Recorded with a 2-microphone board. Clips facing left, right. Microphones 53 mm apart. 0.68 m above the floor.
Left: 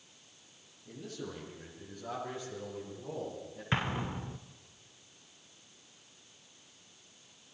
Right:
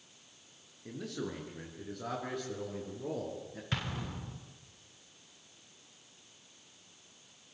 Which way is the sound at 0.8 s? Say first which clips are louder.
Right 4 dB; 85° right.